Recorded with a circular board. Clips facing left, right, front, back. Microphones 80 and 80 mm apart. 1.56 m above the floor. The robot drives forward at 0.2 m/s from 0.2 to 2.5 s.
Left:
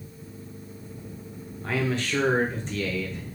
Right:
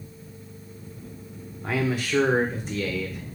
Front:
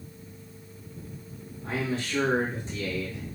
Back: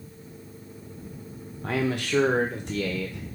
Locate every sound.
1.6 s a man speaking: 170° right, 0.7 m; by 3.3 s 175° right, 0.8 m